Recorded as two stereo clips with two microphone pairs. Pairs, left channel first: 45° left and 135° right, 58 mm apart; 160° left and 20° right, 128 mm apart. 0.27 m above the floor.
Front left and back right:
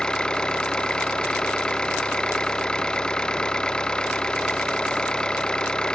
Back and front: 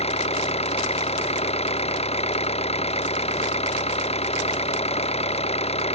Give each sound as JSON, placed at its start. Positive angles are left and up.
{"t": 0.0, "sound": "an engine running", "azimuth_deg": 120}